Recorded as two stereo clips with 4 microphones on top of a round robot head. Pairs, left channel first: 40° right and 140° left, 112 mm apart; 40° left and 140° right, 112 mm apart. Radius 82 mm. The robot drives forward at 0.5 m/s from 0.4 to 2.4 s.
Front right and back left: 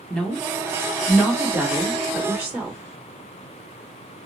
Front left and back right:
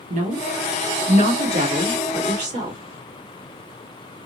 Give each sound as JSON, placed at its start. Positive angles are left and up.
{"t": 0.1, "sound": "a woman speaking", "azimuth_deg": -125, "distance_m": 1.3}